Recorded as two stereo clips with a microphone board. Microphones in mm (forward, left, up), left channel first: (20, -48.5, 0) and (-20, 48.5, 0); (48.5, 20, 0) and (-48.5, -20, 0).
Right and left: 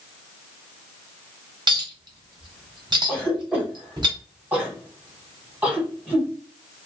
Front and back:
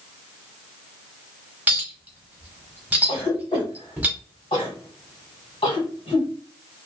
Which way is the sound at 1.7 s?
135° left.